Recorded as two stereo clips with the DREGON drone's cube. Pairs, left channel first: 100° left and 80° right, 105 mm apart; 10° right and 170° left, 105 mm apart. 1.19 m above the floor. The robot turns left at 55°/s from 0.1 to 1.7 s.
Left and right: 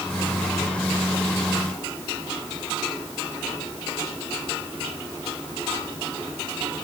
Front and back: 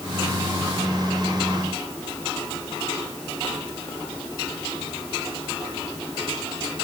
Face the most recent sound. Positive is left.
No sound to turn to.